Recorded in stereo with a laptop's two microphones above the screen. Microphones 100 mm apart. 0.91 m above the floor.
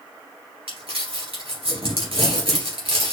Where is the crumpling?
70° right (ahead or behind), 2.5 m.